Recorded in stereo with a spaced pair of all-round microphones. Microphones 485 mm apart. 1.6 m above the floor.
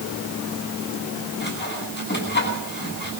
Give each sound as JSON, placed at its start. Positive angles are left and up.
{"t": 1.4, "sound": "sawing", "side_deg": 20, "distance_m": 10.0}